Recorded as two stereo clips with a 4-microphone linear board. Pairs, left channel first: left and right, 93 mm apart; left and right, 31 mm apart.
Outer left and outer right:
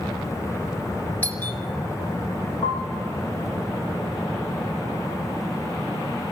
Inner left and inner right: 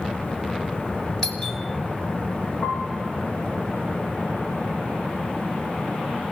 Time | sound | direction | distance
1.2 | a doorbell | 20° left (ahead or behind) | 3 m
2.6 | a piano | 50° left (ahead or behind) | 9 m